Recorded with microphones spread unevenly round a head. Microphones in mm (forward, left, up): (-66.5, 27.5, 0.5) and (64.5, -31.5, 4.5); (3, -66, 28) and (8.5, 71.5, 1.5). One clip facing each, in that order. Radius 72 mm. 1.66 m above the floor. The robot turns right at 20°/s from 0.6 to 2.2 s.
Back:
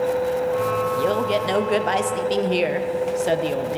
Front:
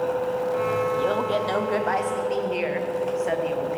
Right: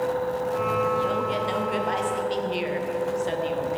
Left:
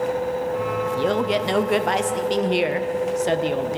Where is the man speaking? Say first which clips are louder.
Back 2 dB, left 4 dB; 80° left, 0.8 m; by 3.8 s 105° left, 0.8 m.